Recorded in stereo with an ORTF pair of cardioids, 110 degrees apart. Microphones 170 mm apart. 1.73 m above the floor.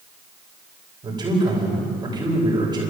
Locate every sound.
1.0 s a man speaking: 25° right, 8.5 m